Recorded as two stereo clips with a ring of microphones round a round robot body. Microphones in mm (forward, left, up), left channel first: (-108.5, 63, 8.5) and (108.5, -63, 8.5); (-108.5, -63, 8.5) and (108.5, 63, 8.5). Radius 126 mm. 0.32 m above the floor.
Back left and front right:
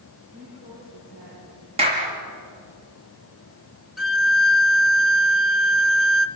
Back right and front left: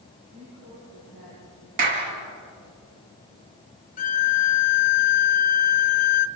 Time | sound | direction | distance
0.3 | a woman speaking | straight ahead | 9.5 m
1.8 | a clap | 40° left | 5 m
4.0 | a violin | 120° right | 0.8 m